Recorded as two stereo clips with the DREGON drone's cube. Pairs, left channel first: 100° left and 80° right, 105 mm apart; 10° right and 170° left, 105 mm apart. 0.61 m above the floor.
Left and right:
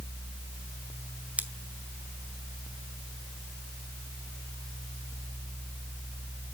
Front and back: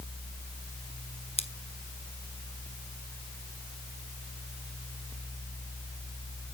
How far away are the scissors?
About 0.9 m.